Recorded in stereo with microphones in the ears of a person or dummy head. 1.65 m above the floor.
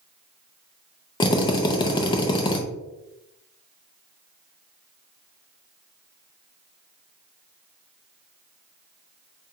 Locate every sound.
1.2 s a drill: 25° left (ahead or behind), 0.6 m